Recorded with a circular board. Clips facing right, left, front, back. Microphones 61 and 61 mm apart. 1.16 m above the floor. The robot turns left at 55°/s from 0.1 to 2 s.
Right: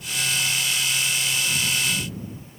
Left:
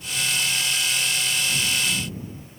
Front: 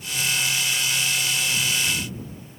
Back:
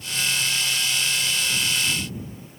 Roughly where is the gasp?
I don't hear a gasp.